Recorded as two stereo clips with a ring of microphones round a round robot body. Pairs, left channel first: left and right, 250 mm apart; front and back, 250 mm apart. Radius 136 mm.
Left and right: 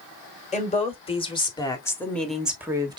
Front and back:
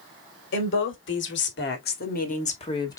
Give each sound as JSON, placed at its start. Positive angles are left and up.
{"t": 0.5, "sound": "a woman speaking", "azimuth_deg": 30, "distance_m": 2.5}